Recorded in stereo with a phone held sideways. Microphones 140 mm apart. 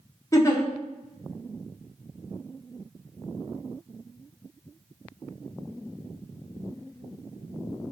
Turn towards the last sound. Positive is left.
turn(degrees=20)  # may be behind; listen again after turning